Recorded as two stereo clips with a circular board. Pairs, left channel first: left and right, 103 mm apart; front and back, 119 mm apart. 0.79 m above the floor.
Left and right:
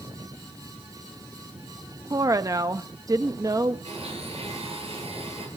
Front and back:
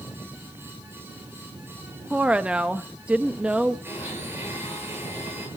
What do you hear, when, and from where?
2.1 s a woman speaking: 105° right, 0.6 m
3.9 s a blender: 110° right, 9 m